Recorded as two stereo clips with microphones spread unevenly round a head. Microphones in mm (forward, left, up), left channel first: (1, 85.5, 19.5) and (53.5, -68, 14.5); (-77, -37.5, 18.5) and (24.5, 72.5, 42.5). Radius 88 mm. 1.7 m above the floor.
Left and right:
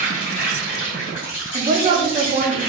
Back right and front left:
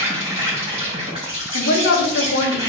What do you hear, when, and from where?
0.0 s an insect: 100° left, 2 m
1.5 s a woman speaking: 130° right, 1.0 m